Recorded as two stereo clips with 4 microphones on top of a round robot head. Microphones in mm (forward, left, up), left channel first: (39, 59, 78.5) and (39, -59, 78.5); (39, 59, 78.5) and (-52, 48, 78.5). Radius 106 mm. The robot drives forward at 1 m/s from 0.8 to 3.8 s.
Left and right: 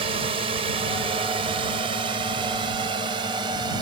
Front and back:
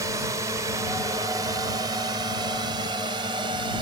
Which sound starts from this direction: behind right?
A drone, at 0.0 s.